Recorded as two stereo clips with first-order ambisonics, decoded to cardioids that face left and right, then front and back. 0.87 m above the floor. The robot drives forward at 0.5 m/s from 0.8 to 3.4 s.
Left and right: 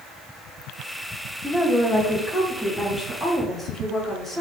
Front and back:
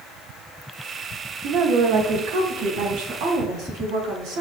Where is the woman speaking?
175° left, 0.6 m; by 4.4 s straight behind, 1.4 m.